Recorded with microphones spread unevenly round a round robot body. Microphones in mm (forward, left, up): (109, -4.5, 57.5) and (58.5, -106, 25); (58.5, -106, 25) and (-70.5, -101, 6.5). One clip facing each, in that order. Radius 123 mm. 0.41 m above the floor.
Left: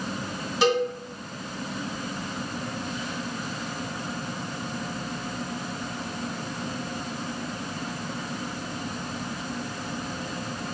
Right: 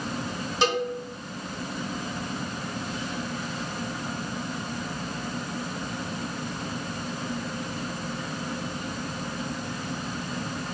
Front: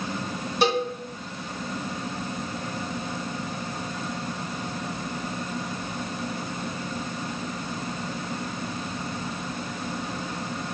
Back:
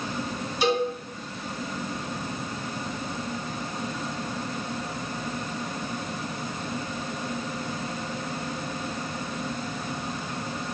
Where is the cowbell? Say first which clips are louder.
Left 3 dB, even; 35° right, 1.9 m.